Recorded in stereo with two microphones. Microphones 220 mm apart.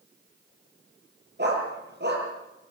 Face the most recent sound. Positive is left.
turn(degrees=-50)  # may be behind; listen again after turning